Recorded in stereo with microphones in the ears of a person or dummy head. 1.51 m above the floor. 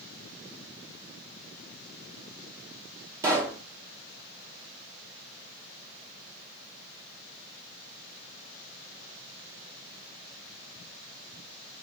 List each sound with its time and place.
3.2 s a pop: 20° right (ahead or behind), 1.0 m